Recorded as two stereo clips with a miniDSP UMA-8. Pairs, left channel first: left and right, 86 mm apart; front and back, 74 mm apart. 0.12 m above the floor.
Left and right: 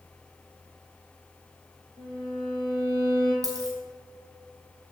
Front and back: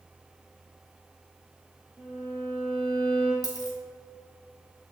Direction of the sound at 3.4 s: 40° right.